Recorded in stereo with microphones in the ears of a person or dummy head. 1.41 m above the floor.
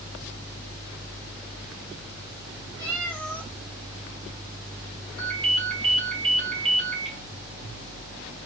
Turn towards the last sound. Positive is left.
turn(degrees=0)  # may be behind; listen again after turning